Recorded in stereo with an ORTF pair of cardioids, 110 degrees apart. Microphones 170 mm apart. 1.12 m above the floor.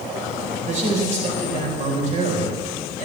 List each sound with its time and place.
0.7 s a man speaking: 45° right, 4.5 m